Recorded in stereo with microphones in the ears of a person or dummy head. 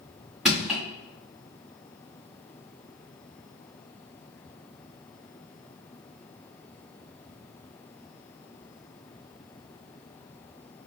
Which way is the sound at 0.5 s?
Centre (ahead or behind).